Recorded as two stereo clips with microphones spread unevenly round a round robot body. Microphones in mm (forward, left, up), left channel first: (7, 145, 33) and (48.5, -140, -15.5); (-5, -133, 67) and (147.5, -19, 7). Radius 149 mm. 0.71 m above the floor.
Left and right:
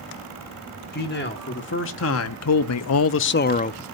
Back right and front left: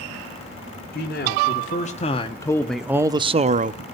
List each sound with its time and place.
0.9 s a man speaking: 160° left, 1.6 m; by 3.8 s 25° left, 0.9 m